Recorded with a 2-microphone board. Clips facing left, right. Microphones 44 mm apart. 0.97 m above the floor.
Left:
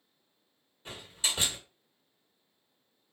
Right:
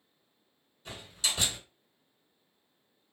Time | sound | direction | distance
0.8 | a door slam | 25° left (ahead or behind) | 1.4 m